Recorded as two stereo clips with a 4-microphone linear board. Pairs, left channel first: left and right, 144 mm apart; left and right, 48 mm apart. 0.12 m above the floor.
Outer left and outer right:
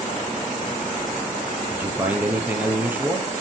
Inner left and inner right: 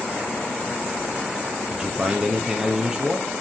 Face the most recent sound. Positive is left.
turn(degrees=-10)  # may be behind; listen again after turning